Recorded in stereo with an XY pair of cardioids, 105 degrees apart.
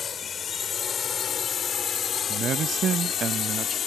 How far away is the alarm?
I don't hear an alarm.